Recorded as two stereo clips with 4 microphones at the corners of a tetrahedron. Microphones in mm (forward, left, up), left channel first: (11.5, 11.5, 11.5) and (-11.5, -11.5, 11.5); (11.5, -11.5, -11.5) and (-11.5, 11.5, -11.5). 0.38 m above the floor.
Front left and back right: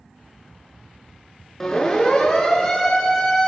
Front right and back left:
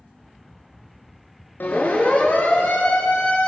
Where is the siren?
30° right, 6.5 m.